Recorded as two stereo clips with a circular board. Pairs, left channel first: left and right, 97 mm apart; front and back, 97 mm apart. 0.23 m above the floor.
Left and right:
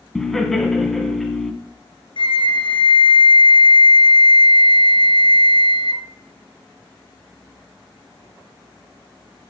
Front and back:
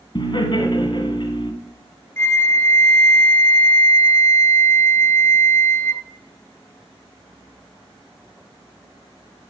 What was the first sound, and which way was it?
Laughter, 5° left.